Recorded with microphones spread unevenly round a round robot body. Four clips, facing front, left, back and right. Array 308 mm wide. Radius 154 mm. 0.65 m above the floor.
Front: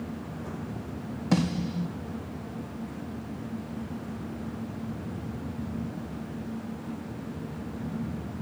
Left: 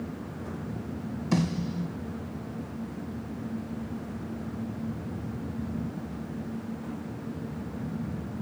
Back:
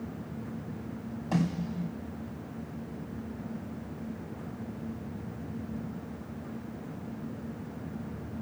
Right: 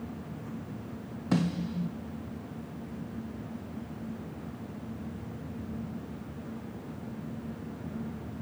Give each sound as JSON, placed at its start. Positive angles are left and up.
{"t": 1.3, "sound": "a snare drum", "azimuth_deg": -35, "distance_m": 4.5}